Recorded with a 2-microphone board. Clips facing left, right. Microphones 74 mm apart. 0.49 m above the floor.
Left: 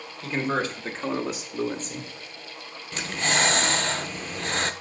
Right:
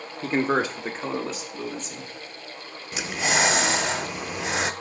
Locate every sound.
0.2 s a man speaking: 40° right (ahead or behind), 1.3 m; by 2.1 s 45° left (ahead or behind), 1.3 m
2.9 s breathing: 10° right (ahead or behind), 0.5 m